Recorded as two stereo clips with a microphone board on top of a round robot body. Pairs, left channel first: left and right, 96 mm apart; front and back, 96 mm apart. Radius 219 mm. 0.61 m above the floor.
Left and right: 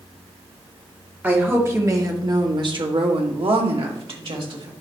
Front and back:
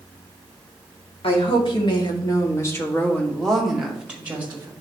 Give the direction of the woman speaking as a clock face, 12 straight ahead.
1 o'clock.